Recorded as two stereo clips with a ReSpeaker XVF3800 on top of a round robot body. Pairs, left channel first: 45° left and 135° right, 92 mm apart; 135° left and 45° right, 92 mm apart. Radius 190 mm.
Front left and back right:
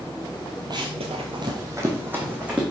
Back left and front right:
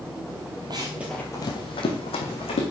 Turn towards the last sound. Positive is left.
turn(degrees=150)